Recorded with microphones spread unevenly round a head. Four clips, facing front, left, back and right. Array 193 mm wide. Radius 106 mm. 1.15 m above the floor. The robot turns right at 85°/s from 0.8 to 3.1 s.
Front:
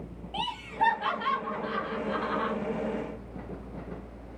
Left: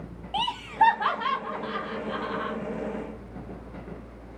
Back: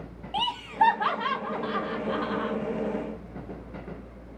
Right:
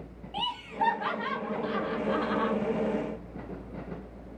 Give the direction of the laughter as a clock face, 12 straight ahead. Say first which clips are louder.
Left 7 dB, back 5 dB; 8 o'clock.